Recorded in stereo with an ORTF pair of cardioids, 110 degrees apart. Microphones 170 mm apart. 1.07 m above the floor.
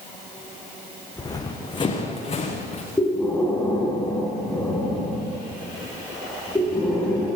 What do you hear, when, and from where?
1.2 s running footsteps: 20° left, 5 m; by 2.8 s 40° left, 6.5 m
3.0 s breathing: 10° left, 7.5 m